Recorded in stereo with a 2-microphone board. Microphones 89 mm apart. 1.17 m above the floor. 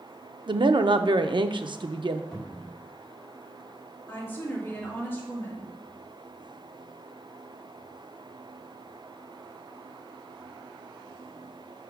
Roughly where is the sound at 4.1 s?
Left.